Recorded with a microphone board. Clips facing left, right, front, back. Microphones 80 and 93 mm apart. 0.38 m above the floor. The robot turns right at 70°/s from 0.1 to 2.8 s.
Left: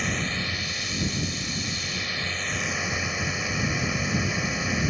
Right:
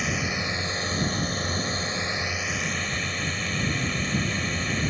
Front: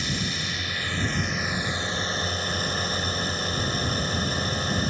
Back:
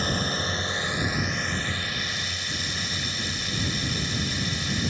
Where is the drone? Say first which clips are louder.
Right 1 dB, back 3 dB; 175° right; by 4.9 s 15° left.